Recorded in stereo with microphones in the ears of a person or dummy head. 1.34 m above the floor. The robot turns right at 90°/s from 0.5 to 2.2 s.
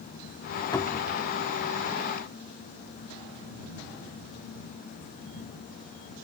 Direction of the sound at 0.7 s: 160° left.